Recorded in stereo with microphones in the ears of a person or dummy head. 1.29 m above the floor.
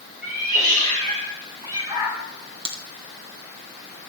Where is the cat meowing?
60° right (ahead or behind), 3 m; by 2.2 s 5° right (ahead or behind), 2 m.